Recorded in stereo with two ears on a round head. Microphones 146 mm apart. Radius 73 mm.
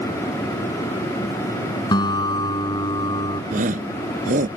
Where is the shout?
50° right (ahead or behind).